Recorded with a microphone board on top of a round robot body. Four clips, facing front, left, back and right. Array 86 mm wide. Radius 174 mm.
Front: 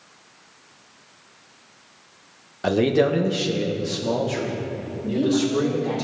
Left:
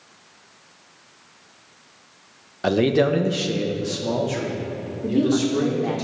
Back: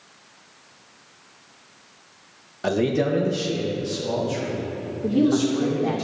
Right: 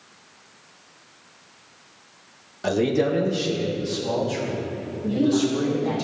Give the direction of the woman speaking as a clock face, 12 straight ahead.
7 o'clock.